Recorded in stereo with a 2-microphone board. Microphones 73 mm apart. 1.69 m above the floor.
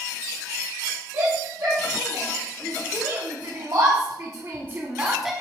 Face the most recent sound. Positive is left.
turn(degrees=0)  # may be behind; listen again after turning